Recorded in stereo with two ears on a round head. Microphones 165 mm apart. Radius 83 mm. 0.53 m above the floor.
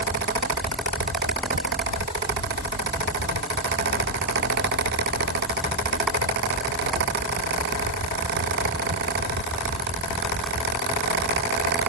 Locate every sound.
Only background noise.